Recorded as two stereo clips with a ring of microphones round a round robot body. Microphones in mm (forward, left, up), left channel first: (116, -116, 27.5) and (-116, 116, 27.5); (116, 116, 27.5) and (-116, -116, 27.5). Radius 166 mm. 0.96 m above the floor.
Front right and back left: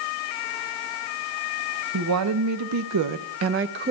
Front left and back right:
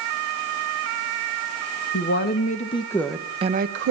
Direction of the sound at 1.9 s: 100° left.